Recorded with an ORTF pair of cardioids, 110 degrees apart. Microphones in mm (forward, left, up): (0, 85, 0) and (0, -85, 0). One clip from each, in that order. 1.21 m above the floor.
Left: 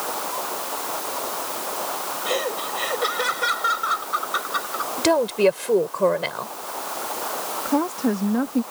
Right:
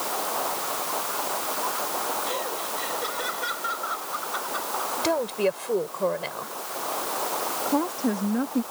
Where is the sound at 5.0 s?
35° left.